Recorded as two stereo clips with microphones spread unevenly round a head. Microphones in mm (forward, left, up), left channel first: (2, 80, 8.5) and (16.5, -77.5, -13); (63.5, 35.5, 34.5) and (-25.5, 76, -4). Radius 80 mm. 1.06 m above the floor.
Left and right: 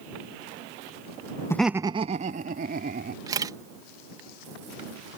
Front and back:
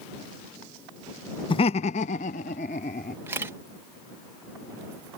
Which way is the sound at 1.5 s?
20° left.